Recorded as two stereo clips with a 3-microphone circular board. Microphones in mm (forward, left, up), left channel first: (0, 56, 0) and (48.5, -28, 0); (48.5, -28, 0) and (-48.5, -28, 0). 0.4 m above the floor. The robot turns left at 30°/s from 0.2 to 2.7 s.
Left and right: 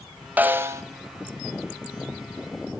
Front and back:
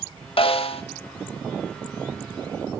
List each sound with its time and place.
0.4 s a snare drum: 15° left, 0.5 m; by 0.8 s straight ahead, 0.5 m